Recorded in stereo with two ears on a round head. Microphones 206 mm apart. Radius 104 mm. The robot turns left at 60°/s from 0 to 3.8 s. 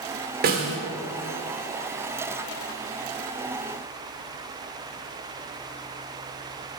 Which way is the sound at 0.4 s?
40° right (ahead or behind).